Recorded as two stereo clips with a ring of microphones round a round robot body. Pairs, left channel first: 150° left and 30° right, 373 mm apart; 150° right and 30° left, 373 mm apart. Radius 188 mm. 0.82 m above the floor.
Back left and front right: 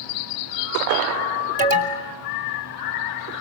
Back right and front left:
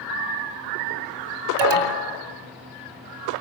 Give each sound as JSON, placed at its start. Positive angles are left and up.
{"t": 1.6, "sound": "an alarm", "azimuth_deg": 40, "distance_m": 2.5}